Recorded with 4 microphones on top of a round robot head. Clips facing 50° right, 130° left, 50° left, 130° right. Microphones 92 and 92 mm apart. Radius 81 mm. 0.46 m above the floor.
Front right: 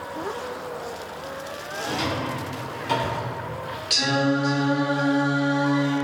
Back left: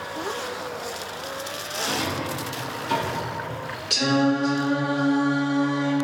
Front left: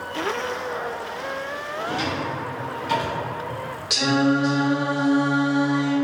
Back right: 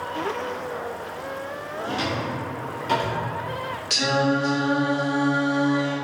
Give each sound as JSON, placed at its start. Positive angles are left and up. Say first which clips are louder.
{"t": 1.8, "sound": "a drawer", "louder": "front right 1 dB, even", "azimuth_deg": -85, "distance_m": 1.4}
{"t": 3.9, "sound": "singing", "louder": "back left 2 dB, front left 2 dB", "azimuth_deg": 125, "distance_m": 1.5}